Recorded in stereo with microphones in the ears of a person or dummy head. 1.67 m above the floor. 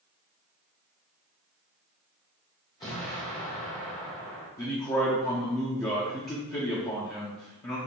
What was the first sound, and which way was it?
An explosion, 15° left (ahead or behind).